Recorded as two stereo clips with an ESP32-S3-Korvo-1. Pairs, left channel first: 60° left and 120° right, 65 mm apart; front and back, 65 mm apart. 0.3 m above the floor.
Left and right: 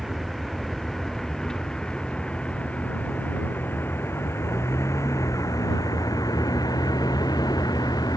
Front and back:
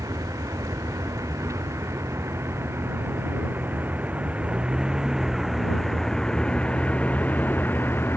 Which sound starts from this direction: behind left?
A vehicle, at 0.0 s.